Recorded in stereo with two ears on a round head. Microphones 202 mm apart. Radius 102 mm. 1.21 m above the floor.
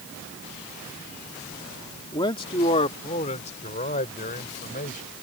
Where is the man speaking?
20° left (ahead or behind); by 5.0 s 35° left (ahead or behind).